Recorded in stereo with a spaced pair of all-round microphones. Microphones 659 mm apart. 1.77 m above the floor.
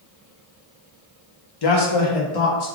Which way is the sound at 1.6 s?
40° left (ahead or behind).